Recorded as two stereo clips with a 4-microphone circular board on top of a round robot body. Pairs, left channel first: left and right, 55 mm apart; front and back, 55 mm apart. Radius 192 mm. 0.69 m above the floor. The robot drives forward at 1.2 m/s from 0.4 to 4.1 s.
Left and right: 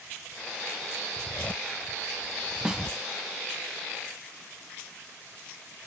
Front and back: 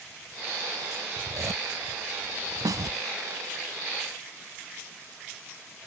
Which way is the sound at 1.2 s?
160° left.